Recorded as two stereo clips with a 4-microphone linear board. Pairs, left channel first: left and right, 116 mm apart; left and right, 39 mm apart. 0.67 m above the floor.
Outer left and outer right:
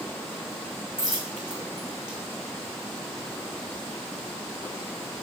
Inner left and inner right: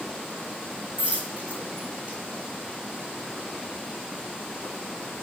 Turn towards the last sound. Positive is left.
turn(degrees=-35)  # may be behind; listen again after turning